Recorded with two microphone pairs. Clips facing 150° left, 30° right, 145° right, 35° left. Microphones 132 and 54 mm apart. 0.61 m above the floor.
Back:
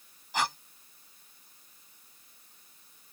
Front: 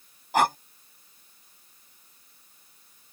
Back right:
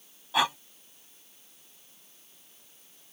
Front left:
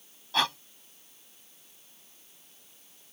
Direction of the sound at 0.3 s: 65° right.